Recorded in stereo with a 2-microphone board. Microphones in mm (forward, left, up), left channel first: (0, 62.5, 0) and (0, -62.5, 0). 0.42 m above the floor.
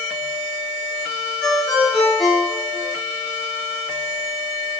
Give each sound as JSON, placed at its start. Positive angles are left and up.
{"t": 1.4, "sound": "a ringtone", "side_deg": 5, "distance_m": 5.0}